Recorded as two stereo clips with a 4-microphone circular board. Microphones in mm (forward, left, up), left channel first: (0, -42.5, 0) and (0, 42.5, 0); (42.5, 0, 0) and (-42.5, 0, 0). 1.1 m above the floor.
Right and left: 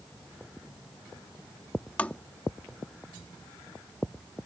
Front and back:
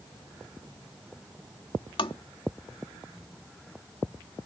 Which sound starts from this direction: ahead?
Tapping, at 2.0 s.